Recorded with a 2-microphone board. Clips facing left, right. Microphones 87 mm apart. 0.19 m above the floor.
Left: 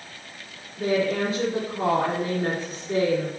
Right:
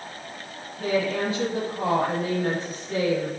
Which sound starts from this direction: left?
A woman speaking, at 0.8 s.